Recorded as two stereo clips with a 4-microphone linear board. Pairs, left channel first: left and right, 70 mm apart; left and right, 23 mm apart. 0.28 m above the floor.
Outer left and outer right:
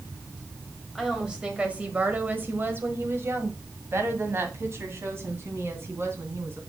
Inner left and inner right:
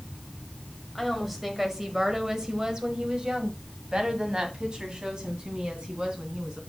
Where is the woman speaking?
10° right (ahead or behind), 1.5 m; by 6.6 s 40° right (ahead or behind), 3 m.